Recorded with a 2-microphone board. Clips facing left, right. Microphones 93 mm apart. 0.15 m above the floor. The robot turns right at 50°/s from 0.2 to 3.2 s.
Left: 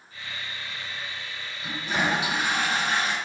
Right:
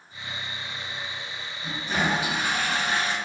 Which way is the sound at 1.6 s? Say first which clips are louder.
Even; straight ahead.